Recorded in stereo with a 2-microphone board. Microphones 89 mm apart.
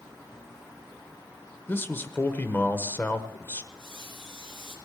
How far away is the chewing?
I don't hear chewing.